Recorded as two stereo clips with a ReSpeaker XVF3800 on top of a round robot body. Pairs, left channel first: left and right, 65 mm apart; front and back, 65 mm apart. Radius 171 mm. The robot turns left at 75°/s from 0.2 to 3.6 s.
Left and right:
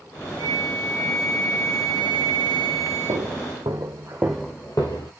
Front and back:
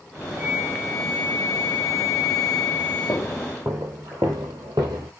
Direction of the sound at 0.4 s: 120° right.